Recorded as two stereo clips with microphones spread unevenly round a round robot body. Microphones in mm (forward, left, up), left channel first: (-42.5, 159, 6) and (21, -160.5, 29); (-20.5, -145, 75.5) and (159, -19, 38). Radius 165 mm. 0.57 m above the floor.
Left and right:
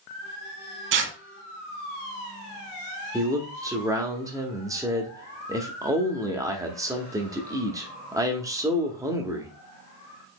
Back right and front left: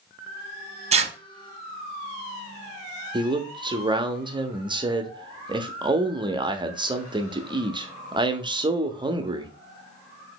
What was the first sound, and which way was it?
Tearing paper, 30° right.